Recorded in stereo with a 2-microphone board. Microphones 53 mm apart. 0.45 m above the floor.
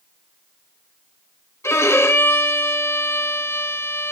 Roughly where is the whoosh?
I don't hear a whoosh.